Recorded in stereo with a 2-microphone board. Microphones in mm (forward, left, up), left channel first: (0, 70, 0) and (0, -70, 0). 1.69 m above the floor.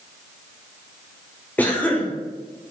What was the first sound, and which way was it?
A cough, 10° left (ahead or behind).